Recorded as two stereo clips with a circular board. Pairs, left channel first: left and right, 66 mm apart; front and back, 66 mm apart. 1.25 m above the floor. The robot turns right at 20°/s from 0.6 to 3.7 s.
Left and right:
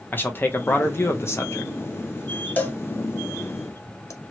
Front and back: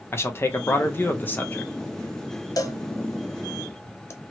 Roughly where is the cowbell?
Ahead left.